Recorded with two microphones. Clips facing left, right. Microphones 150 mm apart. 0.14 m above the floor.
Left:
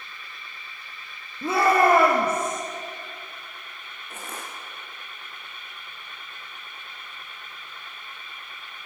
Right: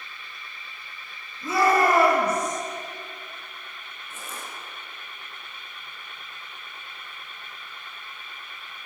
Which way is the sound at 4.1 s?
65° left (ahead or behind).